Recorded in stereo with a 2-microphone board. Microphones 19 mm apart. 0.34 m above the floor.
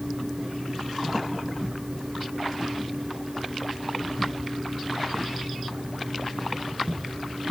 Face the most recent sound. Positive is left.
No sound to turn to.